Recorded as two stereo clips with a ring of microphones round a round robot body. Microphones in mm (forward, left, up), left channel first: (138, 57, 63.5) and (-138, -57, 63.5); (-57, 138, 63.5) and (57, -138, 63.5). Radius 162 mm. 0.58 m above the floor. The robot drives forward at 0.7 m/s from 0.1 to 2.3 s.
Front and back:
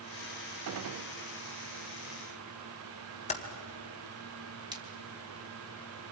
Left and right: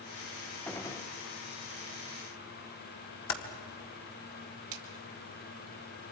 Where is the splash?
80° right, 2.5 m.